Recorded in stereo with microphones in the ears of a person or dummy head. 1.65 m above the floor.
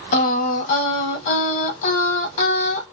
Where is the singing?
50° left (ahead or behind), 1.1 m.